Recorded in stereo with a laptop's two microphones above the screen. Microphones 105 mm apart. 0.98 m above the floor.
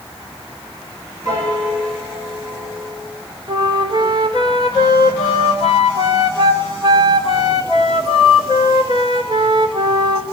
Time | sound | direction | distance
1.2 | a piano | 35° right (ahead or behind) | 5 m
3.5 | a flute | 50° right (ahead or behind) | 2.5 m